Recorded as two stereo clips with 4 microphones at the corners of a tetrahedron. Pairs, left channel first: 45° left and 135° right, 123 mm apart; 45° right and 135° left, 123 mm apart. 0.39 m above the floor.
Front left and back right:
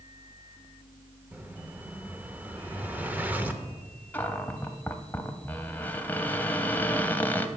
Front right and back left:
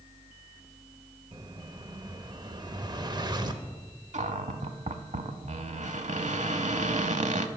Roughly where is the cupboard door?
Behind left.